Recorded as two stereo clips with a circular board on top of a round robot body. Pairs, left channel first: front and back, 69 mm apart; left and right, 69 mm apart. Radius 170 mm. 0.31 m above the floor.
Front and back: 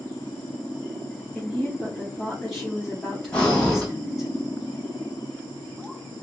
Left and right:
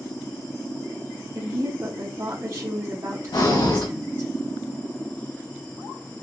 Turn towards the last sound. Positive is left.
turn(degrees=75)